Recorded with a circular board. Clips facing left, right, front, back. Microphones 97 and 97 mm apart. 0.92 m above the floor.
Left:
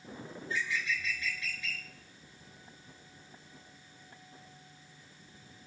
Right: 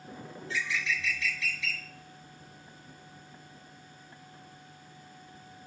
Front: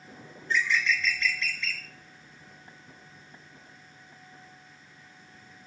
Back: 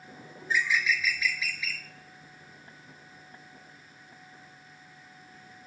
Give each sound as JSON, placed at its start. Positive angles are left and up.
{"t": 0.4, "sound": "a bird", "azimuth_deg": -95, "distance_m": 1.0}